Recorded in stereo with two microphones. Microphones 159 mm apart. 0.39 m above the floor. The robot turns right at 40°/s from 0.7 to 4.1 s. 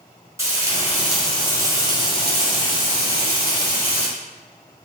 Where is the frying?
20° right, 4.5 m; by 4.1 s 115° left, 4.5 m.